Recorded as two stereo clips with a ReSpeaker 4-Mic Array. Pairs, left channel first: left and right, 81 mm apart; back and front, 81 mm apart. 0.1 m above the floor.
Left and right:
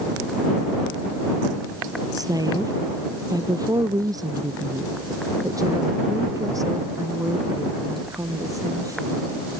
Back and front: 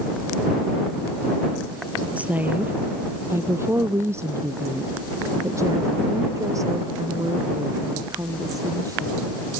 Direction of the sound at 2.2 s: 70° right.